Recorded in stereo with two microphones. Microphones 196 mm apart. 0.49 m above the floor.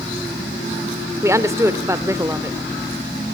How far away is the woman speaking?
About 1.3 m.